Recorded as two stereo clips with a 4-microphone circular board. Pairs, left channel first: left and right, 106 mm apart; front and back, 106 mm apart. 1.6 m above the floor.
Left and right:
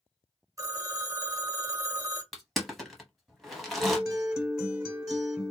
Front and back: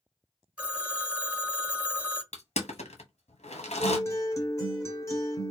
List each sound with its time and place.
0.6 s a phone ringing: 110° right, 0.9 m
2.3 s crushing: straight ahead, 1.0 m
3.8 s a guitar: 10° right, 1.5 m